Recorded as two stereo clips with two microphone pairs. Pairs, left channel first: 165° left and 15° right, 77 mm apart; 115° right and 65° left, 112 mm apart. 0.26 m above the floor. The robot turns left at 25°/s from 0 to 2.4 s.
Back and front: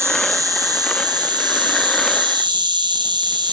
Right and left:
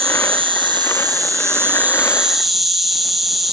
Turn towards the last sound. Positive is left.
turn(degrees=-20)